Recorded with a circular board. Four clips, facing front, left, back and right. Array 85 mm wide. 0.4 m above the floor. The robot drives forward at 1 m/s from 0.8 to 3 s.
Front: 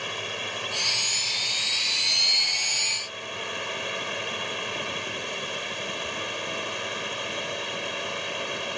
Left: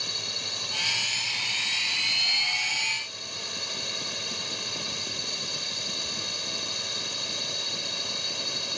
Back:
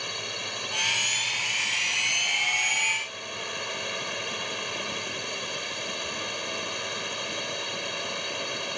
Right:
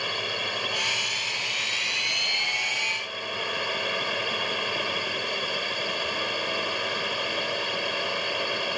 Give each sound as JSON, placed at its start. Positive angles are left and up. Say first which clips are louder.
{"t": 0.0, "sound": "a drone", "louder": "right 9 dB, front 3 dB", "azimuth_deg": -75}